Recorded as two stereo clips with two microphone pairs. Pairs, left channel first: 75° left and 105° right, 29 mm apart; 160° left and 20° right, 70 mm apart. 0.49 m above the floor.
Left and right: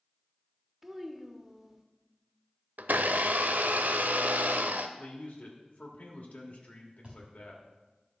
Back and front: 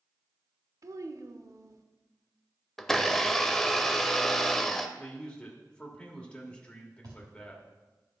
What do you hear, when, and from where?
0.8 s a child speaking: 30° right, 0.8 m
2.8 s a blender: 115° right, 0.6 m
5.0 s a man speaking: 85° left, 1.4 m
7.0 s a thud: 40° right, 4 m